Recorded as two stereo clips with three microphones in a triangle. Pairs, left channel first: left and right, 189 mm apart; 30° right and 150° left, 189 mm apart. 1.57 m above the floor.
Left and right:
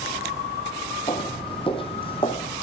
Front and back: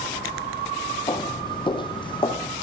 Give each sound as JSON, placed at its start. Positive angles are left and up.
{"t": 1.1, "sound": "footsteps", "azimuth_deg": 30, "distance_m": 3.0}